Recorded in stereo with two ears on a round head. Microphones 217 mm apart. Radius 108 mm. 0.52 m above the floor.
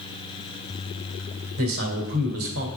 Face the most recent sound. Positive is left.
turn(degrees=-60)  # may be behind; listen again after turning